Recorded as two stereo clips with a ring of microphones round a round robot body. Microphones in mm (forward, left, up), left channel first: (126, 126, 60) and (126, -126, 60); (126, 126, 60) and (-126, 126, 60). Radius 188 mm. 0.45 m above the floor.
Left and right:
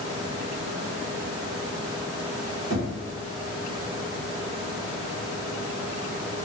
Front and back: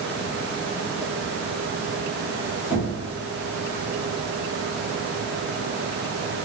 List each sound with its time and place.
2.7 s knocking: 100° right, 1.2 m